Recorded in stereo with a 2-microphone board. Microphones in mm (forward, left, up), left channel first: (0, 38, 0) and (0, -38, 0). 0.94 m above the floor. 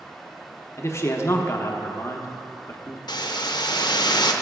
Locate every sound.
0.8 s a man speaking: 35° left (ahead or behind), 0.7 m
3.1 s a hiss: 70° left (ahead or behind), 0.6 m